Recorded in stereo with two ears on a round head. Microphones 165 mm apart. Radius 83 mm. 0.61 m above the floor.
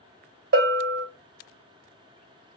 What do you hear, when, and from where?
0.5 s a bell: 55° right (ahead or behind), 0.8 m